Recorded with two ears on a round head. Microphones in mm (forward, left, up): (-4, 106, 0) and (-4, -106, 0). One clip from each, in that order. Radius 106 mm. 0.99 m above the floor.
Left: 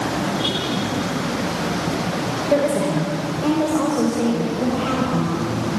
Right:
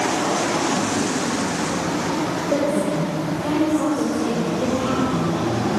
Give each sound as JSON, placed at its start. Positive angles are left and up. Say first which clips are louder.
{"t": 2.5, "sound": "a woman speaking", "louder": "left 4 dB", "side_deg": 85, "distance_m": 4.0}